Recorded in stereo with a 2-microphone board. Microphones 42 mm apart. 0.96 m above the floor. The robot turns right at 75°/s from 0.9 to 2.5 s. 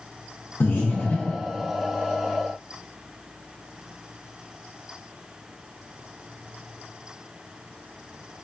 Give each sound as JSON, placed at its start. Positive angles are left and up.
{"t": 0.6, "sound": "breathing", "side_deg": 65, "distance_m": 0.7}